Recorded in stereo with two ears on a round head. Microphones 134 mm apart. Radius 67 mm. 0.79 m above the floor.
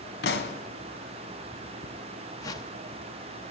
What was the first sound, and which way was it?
A pop, 80° left.